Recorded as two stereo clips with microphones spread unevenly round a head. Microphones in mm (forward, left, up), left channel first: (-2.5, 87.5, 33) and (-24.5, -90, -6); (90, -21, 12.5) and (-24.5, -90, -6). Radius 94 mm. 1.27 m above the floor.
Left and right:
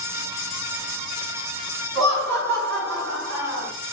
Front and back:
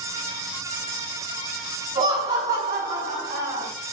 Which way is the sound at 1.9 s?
110° right.